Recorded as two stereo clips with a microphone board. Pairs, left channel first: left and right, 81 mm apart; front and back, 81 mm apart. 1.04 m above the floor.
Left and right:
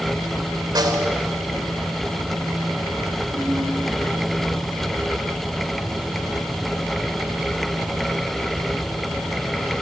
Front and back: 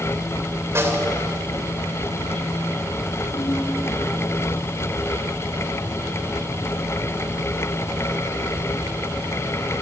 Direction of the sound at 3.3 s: 40° right.